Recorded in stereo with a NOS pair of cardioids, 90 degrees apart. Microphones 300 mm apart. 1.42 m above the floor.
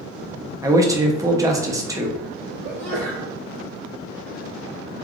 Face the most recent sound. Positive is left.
turn(degrees=-25)